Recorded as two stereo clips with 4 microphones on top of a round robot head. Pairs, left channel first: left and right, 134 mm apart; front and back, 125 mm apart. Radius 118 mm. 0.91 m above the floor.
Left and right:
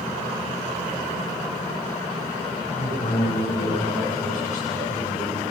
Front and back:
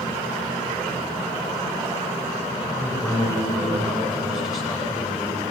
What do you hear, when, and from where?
2.7 s a man speaking: 90° left, 10 m